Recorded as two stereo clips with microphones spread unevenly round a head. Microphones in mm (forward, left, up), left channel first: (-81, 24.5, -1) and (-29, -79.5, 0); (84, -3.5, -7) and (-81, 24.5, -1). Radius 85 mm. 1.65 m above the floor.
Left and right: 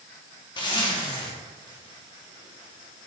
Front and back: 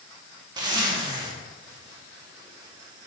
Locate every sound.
0.6 s a zipper: 125° left, 1.3 m